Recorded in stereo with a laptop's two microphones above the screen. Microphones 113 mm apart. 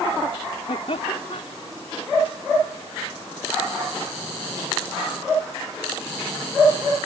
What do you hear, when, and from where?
0.7 s laughter: 65° left (ahead or behind)